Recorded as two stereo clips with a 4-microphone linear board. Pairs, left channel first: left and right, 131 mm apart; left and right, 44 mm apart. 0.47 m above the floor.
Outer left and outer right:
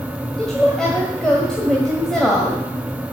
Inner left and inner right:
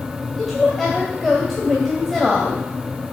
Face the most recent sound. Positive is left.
turn(degrees=5)  # may be behind; listen again after turning